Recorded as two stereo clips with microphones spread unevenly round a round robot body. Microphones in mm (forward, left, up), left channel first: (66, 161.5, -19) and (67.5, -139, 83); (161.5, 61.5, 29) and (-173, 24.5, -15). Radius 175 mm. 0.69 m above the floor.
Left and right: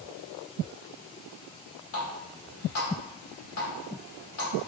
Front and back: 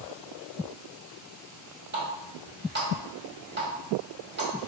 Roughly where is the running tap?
Behind left.